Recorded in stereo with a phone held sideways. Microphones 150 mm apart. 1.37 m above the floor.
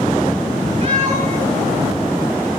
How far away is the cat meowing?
About 8.5 m.